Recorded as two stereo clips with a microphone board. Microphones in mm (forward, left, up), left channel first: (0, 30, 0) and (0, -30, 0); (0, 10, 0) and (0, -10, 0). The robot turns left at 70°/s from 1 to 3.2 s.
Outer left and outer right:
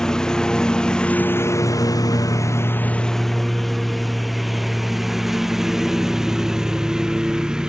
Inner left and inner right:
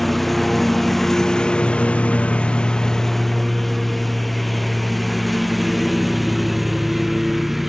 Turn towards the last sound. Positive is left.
turn(degrees=-10)  # may be behind; listen again after turning